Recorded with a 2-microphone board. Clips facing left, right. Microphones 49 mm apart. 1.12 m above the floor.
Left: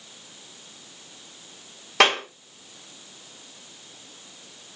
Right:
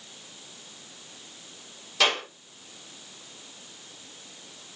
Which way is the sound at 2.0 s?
75° left (ahead or behind).